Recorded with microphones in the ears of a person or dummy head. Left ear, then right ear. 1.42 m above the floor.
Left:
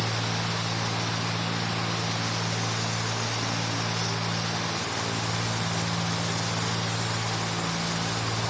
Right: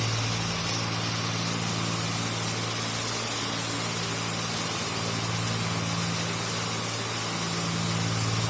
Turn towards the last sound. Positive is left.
No sound to turn to.